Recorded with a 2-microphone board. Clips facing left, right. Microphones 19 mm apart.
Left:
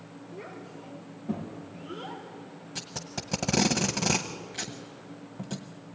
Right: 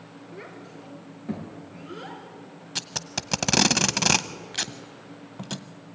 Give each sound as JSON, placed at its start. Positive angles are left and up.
{"t": 0.3, "sound": "a child speaking", "side_deg": -75, "distance_m": 4.0}
{"t": 2.8, "sound": "tape being pulled", "side_deg": -55, "distance_m": 0.8}